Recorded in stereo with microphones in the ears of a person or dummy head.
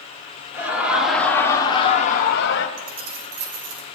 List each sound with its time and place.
0.5 s laughter: 5° right (ahead or behind), 1.8 m; by 2.7 s 65° left (ahead or behind), 1.3 m
2.8 s keys jangling: 80° right, 2 m